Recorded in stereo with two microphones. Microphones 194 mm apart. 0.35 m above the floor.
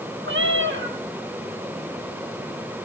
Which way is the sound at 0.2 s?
70° right (ahead or behind).